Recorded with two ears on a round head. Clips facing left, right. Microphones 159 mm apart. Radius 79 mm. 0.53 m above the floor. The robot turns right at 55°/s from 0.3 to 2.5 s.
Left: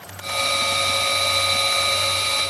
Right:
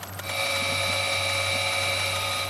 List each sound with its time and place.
Only background noise.